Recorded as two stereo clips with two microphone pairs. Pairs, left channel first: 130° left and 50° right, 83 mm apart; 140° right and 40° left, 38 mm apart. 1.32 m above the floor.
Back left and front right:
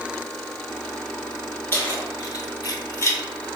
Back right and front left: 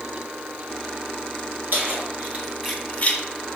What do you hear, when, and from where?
1.7 s keys jangling: 75° left, 1.9 m; by 3.2 s 170° right, 1.0 m